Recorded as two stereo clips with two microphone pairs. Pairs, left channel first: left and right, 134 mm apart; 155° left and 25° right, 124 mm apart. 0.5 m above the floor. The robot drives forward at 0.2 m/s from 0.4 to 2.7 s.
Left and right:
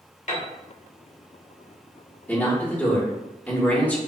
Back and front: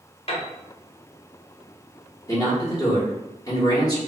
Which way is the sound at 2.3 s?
150° left.